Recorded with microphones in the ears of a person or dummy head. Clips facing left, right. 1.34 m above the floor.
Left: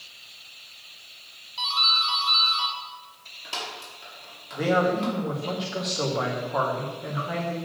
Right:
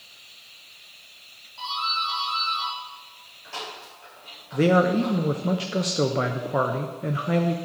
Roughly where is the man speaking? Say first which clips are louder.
Right 4 dB; right.